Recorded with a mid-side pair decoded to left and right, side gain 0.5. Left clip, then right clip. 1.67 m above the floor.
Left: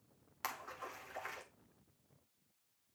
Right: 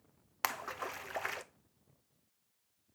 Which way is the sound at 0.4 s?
60° right.